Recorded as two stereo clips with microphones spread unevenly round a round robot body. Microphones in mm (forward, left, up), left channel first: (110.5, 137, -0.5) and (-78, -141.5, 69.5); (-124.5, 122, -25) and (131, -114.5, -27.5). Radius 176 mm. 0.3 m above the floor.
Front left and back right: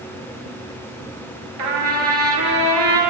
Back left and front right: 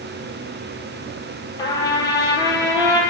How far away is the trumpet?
About 2 m.